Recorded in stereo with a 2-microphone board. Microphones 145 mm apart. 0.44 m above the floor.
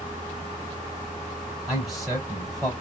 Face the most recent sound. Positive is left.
turn(degrees=0)  # may be behind; listen again after turning